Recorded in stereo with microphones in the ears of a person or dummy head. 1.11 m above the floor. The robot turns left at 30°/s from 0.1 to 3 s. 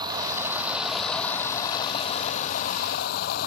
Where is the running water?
155° right; by 3.5 s 120° left.